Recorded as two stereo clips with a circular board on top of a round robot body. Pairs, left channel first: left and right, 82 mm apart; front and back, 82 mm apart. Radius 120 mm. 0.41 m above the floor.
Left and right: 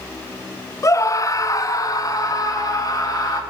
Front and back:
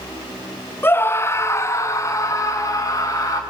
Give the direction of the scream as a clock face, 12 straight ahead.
10 o'clock.